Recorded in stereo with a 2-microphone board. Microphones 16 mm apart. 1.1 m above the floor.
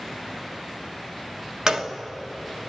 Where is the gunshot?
45° right (ahead or behind), 1.4 m.